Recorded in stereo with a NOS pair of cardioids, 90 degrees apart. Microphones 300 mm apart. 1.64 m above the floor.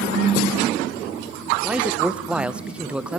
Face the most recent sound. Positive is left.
turn(degrees=-5)